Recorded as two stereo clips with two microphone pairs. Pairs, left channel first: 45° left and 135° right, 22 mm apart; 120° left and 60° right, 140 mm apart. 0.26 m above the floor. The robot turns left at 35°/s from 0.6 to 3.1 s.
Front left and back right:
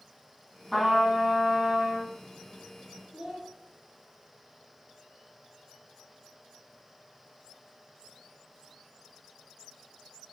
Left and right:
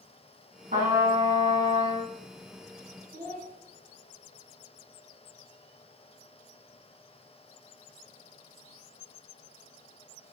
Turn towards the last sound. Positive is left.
turn(degrees=-65)